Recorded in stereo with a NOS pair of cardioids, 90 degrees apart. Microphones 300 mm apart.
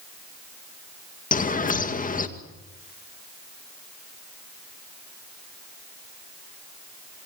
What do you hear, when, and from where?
1.3 s a bird: 30° left, 2.0 m